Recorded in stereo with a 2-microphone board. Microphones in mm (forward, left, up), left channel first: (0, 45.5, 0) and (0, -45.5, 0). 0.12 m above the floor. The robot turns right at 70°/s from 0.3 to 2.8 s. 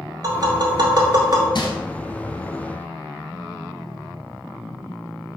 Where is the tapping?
40° right (ahead or behind), 0.7 m; by 1.4 s 35° right (ahead or behind), 0.7 m.